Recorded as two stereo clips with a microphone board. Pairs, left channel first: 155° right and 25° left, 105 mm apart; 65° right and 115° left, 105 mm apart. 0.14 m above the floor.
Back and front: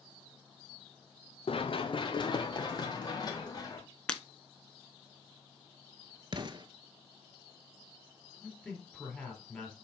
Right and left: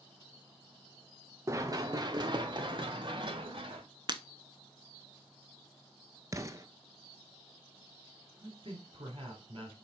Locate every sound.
1.5 s running footsteps: 175° left, 1.0 m; by 3.8 s 150° left, 2.5 m
4.1 s breaking glass: 125° left, 0.7 m
6.3 s an explosion: 55° left, 0.7 m
8.4 s a man speaking: 125° left, 3.5 m